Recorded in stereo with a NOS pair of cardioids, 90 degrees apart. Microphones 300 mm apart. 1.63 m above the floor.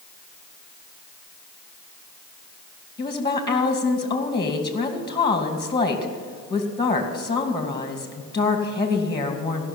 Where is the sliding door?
No sliding door in this recording.